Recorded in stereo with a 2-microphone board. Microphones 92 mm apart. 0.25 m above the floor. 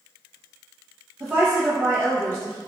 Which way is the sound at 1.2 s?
25° right (ahead or behind).